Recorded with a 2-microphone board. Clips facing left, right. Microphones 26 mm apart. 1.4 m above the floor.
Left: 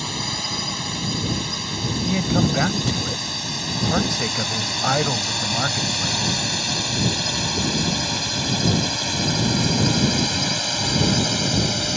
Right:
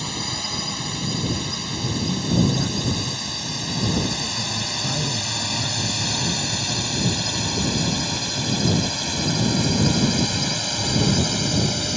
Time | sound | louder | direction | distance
0.0 | a drone | left 1 dB | 10° left (ahead or behind) | ?
2.0 | a man speaking | left 1 dB | 80° left | ?